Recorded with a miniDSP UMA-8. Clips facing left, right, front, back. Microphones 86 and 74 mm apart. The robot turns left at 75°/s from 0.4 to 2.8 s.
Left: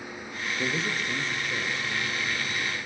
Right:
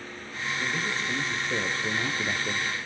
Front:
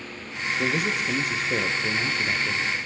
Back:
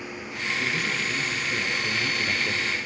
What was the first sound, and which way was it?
A man speaking, 40° left.